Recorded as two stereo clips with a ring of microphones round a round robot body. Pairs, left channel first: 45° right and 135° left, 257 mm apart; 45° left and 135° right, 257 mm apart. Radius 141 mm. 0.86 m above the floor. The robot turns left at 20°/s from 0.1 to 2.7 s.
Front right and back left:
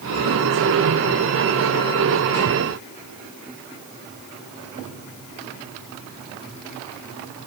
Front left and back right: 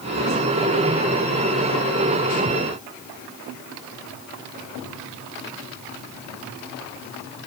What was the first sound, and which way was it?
Only background noise.